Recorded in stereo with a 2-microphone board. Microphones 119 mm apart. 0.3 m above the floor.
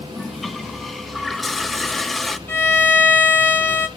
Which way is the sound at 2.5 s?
15° left (ahead or behind).